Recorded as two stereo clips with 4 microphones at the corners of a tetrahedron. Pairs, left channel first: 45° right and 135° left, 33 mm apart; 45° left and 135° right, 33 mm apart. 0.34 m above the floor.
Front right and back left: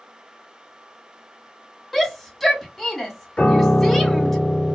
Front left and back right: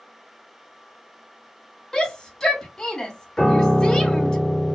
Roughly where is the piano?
Ahead right.